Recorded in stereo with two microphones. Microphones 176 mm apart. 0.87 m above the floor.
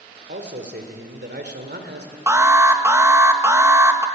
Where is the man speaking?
80° right, 2.5 m.